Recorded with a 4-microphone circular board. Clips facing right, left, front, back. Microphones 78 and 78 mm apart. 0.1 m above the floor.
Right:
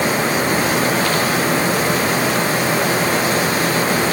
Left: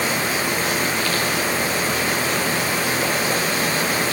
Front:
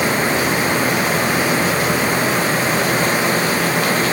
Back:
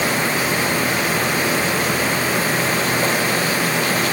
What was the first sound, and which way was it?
Only background noise.